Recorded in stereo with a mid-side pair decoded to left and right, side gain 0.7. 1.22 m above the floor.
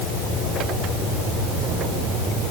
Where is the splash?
I don't hear a splash.